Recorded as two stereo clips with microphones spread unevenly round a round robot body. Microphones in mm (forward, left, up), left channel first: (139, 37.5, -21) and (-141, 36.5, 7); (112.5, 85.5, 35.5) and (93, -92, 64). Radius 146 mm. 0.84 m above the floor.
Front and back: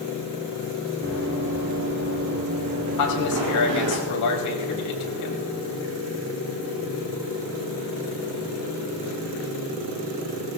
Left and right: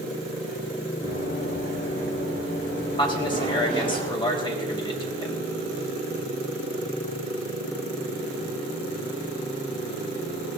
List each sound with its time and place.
1.0 s running footsteps: 135° left, 5.5 m; by 4.0 s 155° left, 5.5 m
3.0 s a man speaking: 20° left, 4.5 m